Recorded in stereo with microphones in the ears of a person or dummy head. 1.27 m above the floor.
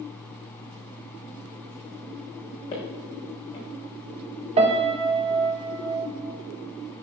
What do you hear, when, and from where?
2.7 s footsteps: 30° left (ahead or behind), 4 m
4.6 s a piano: 30° right (ahead or behind), 1.4 m